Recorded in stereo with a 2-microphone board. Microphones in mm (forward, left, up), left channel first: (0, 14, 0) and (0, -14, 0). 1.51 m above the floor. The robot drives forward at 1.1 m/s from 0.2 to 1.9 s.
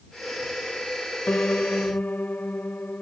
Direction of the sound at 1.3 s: 85° left.